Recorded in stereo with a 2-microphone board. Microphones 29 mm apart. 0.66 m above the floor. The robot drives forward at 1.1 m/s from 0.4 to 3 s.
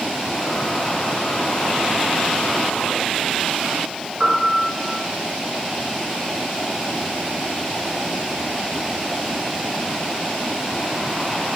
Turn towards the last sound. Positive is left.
turn(degrees=-20)  # may be behind; listen again after turning